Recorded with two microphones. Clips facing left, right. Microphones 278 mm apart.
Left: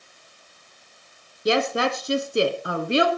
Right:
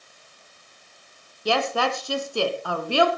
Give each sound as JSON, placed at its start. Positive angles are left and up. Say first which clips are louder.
{"t": 1.4, "sound": "a woman speaking", "louder": "left 3 dB", "side_deg": 20, "distance_m": 1.5}